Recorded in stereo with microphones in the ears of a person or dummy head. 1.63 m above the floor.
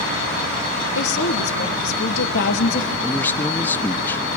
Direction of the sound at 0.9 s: 65° left (ahead or behind).